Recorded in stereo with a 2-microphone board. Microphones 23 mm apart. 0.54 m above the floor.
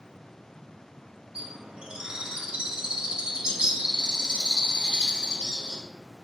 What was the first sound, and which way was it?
A bird, 40° right (ahead or behind).